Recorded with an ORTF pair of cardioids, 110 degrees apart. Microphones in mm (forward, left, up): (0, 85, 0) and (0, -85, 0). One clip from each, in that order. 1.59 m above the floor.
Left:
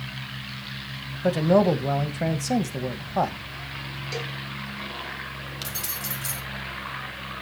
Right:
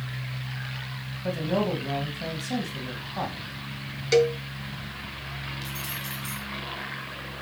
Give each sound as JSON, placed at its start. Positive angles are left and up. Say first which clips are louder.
{"t": 1.2, "sound": "a man speaking", "louder": "left 8 dB", "azimuth_deg": 60, "distance_m": 1.7}
{"t": 4.1, "sound": "a cowbell", "louder": "right 13 dB", "azimuth_deg": -55, "distance_m": 0.8}
{"t": 5.6, "sound": "keys jangling", "louder": "left 1 dB", "azimuth_deg": 70, "distance_m": 2.5}